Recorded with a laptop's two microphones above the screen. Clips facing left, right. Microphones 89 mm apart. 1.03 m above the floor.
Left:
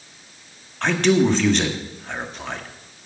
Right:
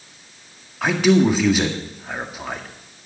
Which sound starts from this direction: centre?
A man speaking, at 0.8 s.